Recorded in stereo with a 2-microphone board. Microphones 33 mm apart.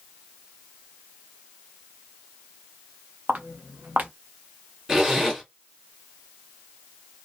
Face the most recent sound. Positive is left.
turn(degrees=-10)  # may be behind; listen again after turning